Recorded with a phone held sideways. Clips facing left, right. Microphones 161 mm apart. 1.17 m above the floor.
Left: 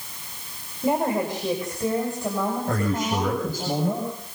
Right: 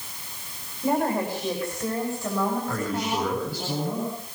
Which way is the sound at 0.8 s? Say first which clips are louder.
Left 1 dB; 20° left (ahead or behind).